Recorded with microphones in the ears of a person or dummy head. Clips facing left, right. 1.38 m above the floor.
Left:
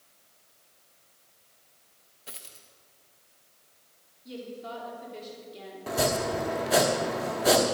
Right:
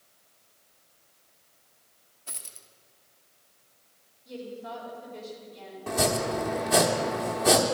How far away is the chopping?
About 1.2 m.